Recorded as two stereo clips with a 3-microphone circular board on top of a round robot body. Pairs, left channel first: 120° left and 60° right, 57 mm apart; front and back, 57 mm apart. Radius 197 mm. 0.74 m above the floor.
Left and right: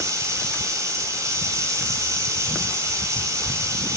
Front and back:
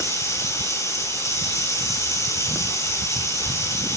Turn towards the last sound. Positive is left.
turn(degrees=-25)